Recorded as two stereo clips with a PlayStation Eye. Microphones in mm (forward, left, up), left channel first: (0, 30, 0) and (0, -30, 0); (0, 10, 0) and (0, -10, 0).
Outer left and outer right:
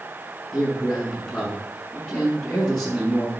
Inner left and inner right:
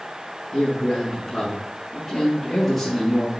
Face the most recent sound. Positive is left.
turn(degrees=20)  # may be behind; listen again after turning